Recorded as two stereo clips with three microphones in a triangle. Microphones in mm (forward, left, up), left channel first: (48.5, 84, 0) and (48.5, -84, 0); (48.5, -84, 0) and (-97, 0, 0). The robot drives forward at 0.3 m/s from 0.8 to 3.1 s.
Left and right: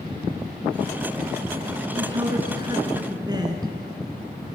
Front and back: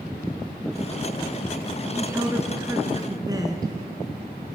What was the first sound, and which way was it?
A woman speaking, 140° right.